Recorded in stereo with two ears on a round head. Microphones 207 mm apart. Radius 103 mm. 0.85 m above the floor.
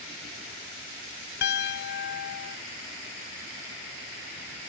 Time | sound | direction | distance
1.4 | a piano | 45° left (ahead or behind) | ?